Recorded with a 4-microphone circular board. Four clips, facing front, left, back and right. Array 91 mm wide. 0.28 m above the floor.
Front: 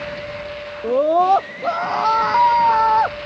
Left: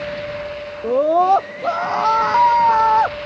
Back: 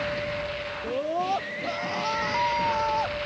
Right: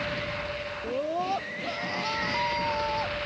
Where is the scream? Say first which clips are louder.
Left 15 dB, front 13 dB; 55° left; by 3.2 s 60° left.